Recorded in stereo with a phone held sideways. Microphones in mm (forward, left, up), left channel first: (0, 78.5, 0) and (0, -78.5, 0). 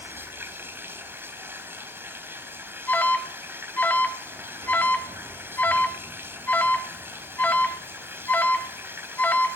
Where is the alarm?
10° left (ahead or behind), 2 m.